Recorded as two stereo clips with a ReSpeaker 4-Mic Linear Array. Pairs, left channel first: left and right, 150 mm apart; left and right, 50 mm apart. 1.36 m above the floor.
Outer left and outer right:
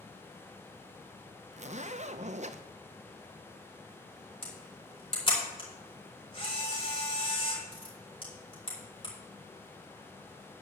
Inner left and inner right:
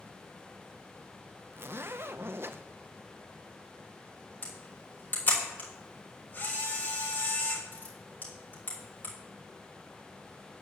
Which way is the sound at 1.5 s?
50° right (ahead or behind).